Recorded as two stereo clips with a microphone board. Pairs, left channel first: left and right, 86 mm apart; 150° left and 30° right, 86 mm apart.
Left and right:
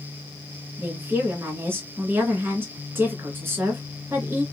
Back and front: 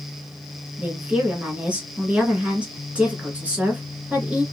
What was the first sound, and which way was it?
A woman speaking, 80° right.